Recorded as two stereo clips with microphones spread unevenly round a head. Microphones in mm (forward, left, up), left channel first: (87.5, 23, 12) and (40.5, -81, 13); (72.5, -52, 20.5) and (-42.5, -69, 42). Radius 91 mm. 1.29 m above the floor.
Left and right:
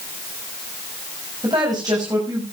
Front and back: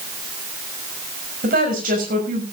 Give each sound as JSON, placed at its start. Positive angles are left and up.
{"t": 1.4, "sound": "a woman speaking", "azimuth_deg": 175, "distance_m": 6.0}